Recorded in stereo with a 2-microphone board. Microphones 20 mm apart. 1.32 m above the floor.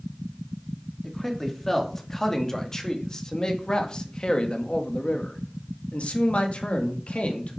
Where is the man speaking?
10° left (ahead or behind), 2.5 m; by 7.6 s 85° left, 2.5 m.